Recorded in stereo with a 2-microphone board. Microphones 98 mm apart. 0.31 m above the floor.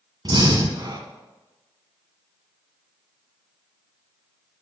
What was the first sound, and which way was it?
Breathing, 45° right (ahead or behind).